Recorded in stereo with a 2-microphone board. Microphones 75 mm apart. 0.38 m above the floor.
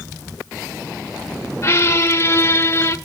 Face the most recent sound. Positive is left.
turn(degrees=35)  # may be behind; listen again after turning